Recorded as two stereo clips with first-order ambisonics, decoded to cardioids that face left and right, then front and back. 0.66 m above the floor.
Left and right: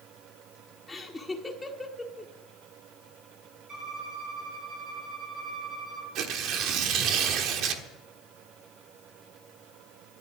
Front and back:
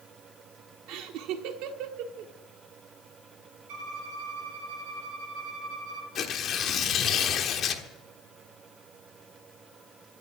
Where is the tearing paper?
55° right, 1.3 m.